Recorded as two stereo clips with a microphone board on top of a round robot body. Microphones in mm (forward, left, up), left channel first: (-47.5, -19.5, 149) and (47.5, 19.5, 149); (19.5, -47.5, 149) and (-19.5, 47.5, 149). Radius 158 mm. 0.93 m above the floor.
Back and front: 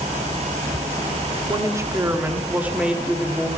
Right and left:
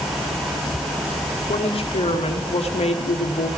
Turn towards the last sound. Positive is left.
turn(degrees=-70)